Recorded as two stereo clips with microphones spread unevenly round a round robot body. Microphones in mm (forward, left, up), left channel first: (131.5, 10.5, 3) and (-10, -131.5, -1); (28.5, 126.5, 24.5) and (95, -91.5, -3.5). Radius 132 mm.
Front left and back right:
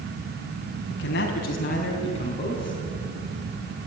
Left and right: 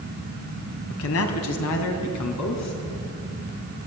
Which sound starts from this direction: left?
A man speaking, at 0.9 s.